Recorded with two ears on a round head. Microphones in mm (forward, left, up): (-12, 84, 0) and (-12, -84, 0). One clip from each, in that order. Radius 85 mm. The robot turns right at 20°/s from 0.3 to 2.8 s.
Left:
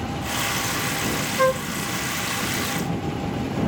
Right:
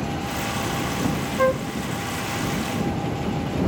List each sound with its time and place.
1.4 s a flute: 45° left (ahead or behind)